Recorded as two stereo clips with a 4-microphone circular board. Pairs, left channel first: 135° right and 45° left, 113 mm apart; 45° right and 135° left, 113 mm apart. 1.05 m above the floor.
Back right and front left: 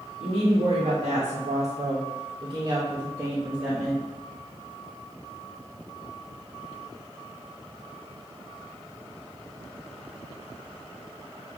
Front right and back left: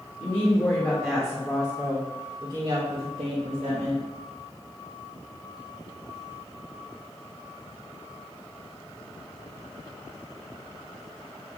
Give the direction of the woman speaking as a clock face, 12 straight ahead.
12 o'clock.